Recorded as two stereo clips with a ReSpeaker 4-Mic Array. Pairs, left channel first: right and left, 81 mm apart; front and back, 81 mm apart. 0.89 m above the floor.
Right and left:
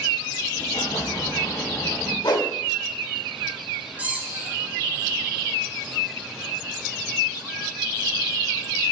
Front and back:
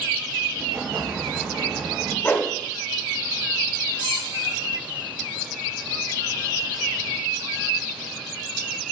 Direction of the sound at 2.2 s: 65° right.